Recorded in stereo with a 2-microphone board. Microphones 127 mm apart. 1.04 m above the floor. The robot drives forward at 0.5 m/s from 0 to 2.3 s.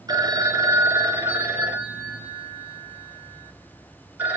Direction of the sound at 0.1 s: 30° right (ahead or behind).